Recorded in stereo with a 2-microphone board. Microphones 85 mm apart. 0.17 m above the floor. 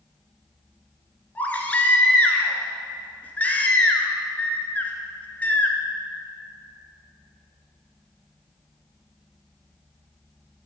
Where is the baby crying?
20° left (ahead or behind), 1.4 m.